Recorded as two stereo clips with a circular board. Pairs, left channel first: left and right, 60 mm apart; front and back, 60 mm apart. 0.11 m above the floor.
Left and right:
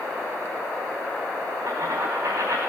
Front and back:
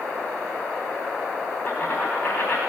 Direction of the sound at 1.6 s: 50° right.